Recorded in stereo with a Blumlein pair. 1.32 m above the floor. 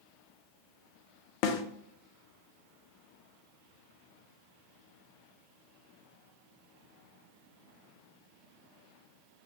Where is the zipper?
No zipper in this recording.